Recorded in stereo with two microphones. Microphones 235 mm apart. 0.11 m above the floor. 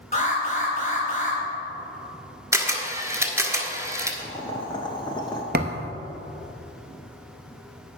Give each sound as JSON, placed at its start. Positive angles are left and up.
{"t": 0.1, "sound": "an alarm", "side_deg": 35, "distance_m": 3.0}
{"t": 2.5, "sound": "a camera shutter", "side_deg": -15, "distance_m": 1.4}
{"t": 4.2, "sound": "boiling", "side_deg": 20, "distance_m": 1.1}
{"t": 5.5, "sound": "a thud", "side_deg": -45, "distance_m": 1.0}